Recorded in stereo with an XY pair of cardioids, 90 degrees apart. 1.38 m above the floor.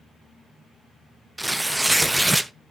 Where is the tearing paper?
10° right, 0.5 m.